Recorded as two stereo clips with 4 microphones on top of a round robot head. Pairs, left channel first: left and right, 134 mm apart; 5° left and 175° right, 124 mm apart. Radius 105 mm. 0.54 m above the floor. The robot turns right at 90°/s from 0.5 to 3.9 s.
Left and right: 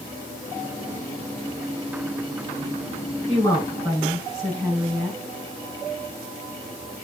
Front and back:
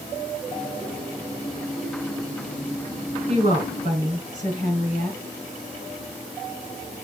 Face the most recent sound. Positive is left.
turn(degrees=-160)